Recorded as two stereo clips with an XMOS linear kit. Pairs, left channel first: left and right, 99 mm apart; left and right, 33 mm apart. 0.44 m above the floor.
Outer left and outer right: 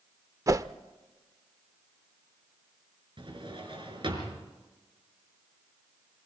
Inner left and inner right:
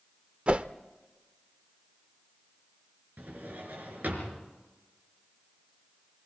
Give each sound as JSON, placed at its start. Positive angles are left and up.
{"t": 0.5, "sound": "a whoosh", "side_deg": -35, "distance_m": 0.6}
{"t": 3.2, "sound": "a drawer", "side_deg": -60, "distance_m": 4.5}